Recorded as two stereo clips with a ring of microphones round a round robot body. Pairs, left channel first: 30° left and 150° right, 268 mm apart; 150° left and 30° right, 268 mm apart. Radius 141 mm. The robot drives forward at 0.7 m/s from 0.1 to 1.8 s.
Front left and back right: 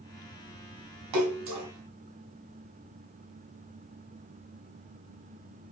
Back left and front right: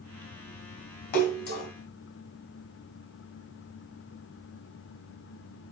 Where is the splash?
155° right, 1.5 m; by 1.7 s 160° right, 1.9 m.